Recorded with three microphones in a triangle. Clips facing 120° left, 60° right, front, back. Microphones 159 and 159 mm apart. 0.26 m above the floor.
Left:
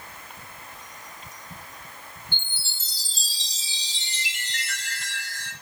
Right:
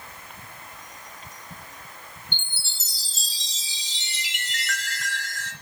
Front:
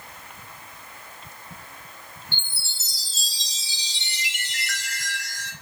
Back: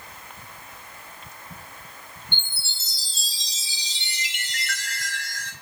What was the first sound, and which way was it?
A chime, 170° left.